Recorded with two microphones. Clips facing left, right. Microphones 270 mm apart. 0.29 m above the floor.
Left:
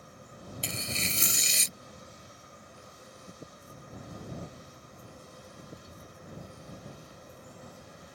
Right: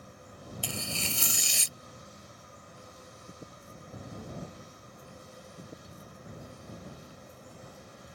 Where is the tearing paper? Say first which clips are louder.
Even; 20° left (ahead or behind).